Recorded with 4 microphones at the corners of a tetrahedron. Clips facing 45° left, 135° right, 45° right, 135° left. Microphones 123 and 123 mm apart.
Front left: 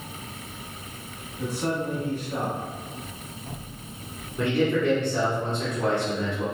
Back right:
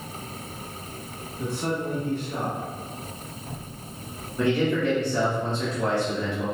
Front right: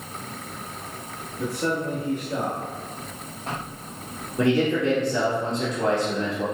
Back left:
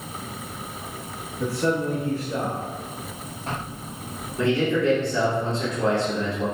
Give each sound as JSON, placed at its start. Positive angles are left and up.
{"t": 1.4, "sound": "a man speaking", "azimuth_deg": -10, "distance_m": 1.4}
{"t": 4.4, "sound": "a man speaking", "azimuth_deg": -20, "distance_m": 1.8}